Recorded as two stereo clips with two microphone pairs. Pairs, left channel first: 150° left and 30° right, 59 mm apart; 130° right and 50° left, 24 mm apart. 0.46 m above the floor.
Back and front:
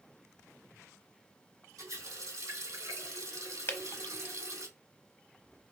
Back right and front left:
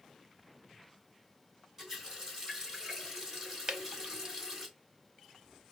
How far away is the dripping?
About 0.7 m.